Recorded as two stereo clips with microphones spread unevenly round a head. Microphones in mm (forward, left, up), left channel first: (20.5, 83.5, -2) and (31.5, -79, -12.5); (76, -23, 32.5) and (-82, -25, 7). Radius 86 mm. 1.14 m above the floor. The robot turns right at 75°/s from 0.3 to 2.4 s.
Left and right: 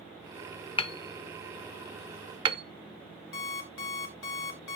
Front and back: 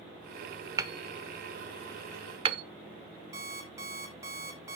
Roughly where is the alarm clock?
Left.